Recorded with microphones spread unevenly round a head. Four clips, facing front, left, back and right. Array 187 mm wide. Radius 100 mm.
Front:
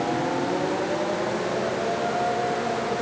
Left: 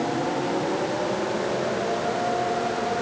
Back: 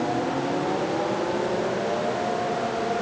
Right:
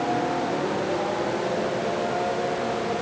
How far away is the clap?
No clap in this recording.